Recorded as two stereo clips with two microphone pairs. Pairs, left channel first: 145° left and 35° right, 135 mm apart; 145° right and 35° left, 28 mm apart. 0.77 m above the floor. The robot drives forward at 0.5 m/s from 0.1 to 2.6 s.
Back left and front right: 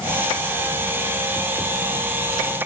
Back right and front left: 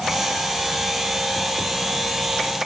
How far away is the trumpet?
I don't hear a trumpet.